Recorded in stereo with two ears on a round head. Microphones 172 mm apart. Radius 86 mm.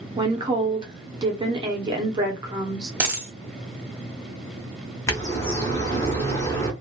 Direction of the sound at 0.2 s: 20° right (ahead or behind).